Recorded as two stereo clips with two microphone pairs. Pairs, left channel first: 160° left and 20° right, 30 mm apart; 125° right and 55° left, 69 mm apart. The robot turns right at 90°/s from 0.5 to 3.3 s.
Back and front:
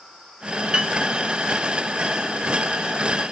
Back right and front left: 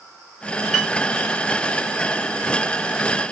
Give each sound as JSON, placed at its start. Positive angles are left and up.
{"t": 0.7, "sound": "a piano", "azimuth_deg": -35, "distance_m": 1.4}